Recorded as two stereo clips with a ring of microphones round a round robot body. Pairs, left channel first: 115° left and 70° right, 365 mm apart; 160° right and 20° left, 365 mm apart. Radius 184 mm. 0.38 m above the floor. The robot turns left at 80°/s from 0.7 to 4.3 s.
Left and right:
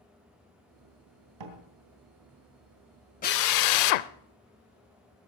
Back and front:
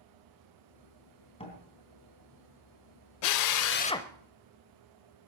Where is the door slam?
80° right, 3 m; by 1.6 s 95° right, 3 m.